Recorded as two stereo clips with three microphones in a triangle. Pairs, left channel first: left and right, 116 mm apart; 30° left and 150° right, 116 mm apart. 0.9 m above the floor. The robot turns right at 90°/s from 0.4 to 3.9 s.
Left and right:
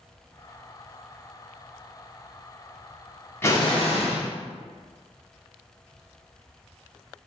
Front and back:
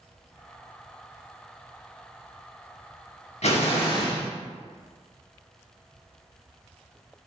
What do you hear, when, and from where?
3.4 s an explosion: 25° left, 0.7 m; by 4.3 s 65° left, 0.7 m